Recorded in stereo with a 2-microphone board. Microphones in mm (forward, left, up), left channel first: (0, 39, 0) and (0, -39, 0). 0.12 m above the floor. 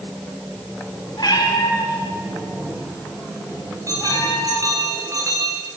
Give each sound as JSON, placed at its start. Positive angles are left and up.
{"t": 1.2, "sound": "a cat meowing", "side_deg": 65, "distance_m": 10.0}
{"t": 3.9, "sound": "a bell", "side_deg": -45, "distance_m": 5.0}